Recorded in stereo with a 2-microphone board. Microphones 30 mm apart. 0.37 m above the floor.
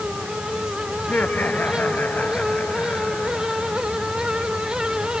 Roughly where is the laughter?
Left.